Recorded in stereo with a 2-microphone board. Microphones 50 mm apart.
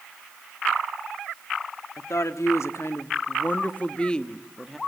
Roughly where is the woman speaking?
Left.